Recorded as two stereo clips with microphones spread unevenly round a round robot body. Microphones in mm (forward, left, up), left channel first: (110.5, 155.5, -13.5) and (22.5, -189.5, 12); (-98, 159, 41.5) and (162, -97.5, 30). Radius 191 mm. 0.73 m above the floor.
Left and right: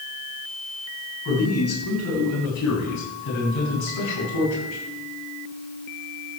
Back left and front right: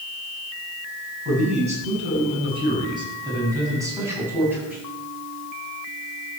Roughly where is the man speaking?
Ahead left.